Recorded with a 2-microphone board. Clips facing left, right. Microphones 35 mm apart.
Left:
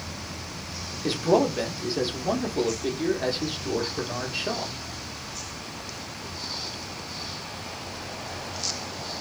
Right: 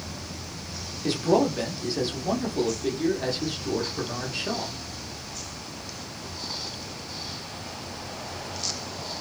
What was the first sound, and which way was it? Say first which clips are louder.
A man speaking: even; 10° left (ahead or behind).